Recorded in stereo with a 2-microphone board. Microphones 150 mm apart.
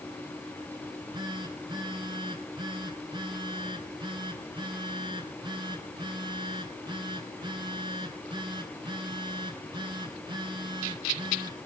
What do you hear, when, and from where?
0.8 s a phone buzzing: 30° right (ahead or behind), 3 m